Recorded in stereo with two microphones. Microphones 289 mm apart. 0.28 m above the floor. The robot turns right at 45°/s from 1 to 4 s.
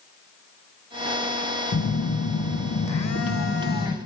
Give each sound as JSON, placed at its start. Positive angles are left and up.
{"t": 1.7, "sound": "a phone buzzing", "azimuth_deg": 55, "distance_m": 0.6}